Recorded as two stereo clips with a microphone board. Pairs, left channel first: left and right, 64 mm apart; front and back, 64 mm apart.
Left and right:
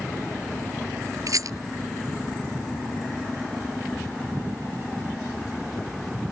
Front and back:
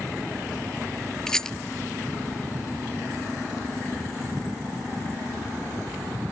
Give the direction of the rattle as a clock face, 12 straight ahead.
3 o'clock.